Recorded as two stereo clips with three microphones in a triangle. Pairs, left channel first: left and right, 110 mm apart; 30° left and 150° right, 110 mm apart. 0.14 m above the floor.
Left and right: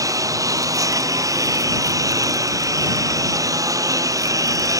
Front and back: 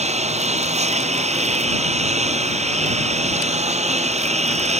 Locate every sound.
0.0 s a lawn mower: 150° right